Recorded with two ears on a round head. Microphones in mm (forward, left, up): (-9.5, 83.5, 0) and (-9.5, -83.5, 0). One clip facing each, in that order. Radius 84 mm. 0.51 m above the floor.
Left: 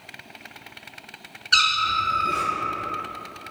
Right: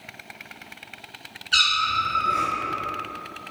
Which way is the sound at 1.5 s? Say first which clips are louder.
Left 1 dB; 60° left (ahead or behind).